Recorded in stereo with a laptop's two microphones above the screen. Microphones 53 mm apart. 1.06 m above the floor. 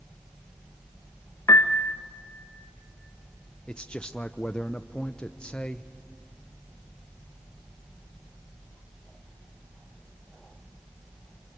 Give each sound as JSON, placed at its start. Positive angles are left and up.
{"t": 1.5, "sound": "a piano", "side_deg": 60, "distance_m": 0.6}
{"t": 3.7, "sound": "a man speaking", "side_deg": 15, "distance_m": 0.5}